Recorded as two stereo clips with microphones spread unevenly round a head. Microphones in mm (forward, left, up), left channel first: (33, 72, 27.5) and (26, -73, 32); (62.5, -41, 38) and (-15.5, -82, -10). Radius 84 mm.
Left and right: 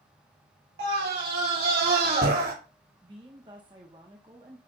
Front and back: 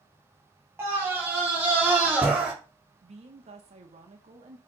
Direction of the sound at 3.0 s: 155° right.